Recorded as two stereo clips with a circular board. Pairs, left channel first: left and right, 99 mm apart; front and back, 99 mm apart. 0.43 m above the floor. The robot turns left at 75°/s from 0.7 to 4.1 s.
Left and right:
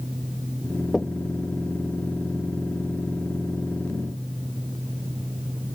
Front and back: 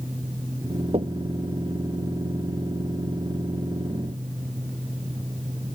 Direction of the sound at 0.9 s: Straight behind.